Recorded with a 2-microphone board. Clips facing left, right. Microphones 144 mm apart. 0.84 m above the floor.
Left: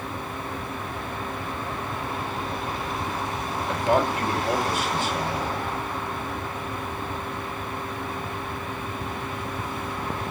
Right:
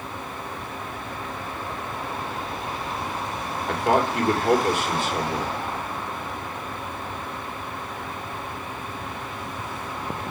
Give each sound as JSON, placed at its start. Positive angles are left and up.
{"t": 3.7, "sound": "a man speaking", "side_deg": -70, "distance_m": 3.5}